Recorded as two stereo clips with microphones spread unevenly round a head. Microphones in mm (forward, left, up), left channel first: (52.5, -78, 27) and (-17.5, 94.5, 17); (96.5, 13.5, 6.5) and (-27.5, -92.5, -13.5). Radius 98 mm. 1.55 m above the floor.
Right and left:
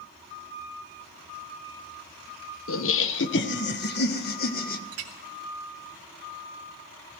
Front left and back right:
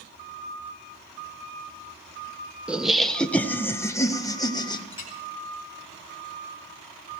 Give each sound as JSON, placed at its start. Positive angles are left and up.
{"t": 2.7, "sound": "laughter", "azimuth_deg": -55, "distance_m": 1.1}
{"t": 4.9, "sound": "a clink", "azimuth_deg": 105, "distance_m": 2.5}